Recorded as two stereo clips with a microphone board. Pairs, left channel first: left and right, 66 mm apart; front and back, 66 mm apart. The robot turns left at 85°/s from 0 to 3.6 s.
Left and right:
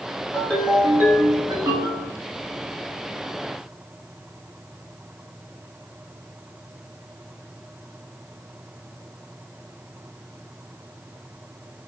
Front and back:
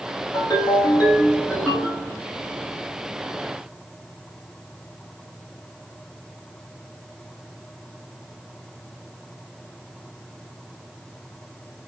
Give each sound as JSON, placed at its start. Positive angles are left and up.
{"t": 0.3, "sound": "a ringtone", "azimuth_deg": 30, "distance_m": 5.5}